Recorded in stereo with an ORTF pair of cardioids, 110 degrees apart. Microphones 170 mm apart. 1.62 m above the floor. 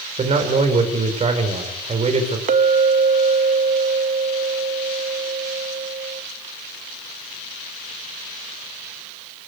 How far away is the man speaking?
About 5 m.